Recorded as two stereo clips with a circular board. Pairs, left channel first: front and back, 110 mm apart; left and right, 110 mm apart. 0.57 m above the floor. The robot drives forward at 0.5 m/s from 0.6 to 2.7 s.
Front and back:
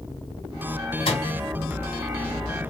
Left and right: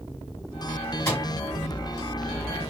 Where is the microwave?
25° left, 2 m.